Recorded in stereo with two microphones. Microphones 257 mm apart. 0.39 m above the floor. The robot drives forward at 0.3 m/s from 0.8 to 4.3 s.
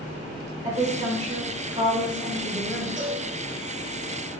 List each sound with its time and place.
0.6 s a woman speaking: 30° right (ahead or behind), 1.5 m
3.0 s a cowbell: 65° right (ahead or behind), 2.0 m